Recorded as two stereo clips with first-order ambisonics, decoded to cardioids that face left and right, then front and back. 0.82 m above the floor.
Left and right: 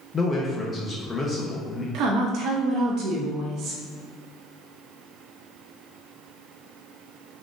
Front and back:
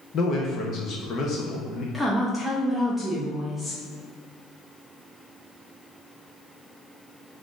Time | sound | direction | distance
0.1 | a man speaking | 25° left | 0.6 m
1.9 | a woman speaking | 90° right | 0.6 m